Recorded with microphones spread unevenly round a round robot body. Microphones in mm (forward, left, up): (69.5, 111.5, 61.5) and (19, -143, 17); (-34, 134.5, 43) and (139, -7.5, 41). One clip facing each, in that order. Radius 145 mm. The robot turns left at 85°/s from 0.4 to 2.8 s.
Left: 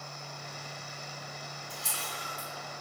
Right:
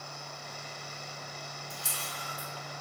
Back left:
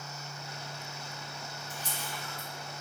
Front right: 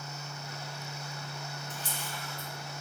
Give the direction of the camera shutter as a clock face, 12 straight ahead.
2 o'clock.